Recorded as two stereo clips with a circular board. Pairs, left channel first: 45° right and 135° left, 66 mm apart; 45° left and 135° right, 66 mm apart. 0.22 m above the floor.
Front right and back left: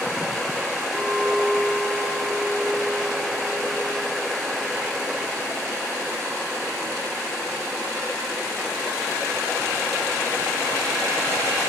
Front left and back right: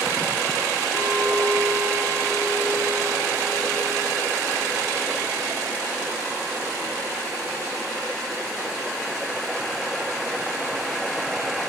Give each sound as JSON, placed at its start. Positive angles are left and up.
{"t": 0.9, "sound": "a clink", "azimuth_deg": -135, "distance_m": 8.0}